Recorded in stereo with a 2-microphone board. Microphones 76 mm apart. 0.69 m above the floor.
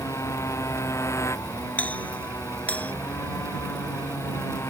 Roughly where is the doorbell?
Centre.